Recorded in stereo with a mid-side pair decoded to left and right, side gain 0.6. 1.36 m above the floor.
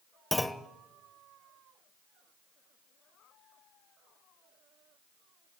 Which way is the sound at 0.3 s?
5° left.